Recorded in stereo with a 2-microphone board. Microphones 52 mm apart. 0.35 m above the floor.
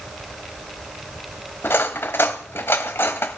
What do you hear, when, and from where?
1.6 s cutlery clinking: 50° left (ahead or behind), 1.0 m